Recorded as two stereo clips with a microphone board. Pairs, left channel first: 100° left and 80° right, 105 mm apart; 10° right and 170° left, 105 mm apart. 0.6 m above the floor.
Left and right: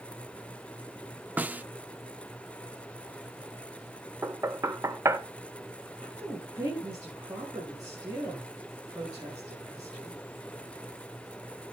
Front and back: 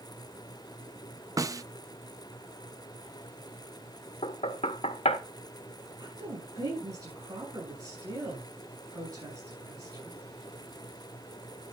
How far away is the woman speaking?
About 8.5 m.